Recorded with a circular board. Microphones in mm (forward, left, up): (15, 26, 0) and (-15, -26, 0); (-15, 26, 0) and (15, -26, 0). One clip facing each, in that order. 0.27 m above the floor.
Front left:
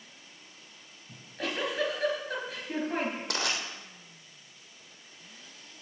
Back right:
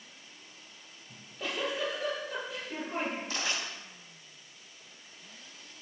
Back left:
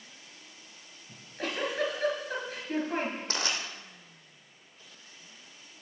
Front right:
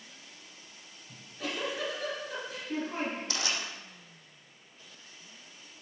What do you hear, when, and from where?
1.1 s a giggle: 85° left, 4.5 m
3.3 s crushing: 75° left, 2.5 m